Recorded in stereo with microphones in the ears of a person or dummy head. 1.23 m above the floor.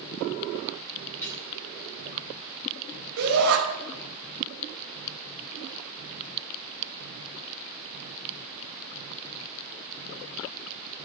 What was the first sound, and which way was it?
Dishes clattering, 15° left (ahead or behind).